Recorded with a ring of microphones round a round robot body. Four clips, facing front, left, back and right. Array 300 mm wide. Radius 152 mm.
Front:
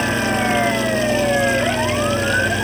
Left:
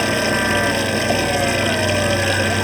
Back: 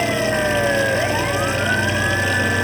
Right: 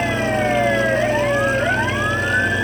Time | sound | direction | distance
0.0 | running water | 90° left | ?